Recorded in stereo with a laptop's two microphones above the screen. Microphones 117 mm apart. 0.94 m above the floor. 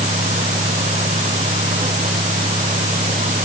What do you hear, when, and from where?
0.0 s a fan: 75° right (ahead or behind)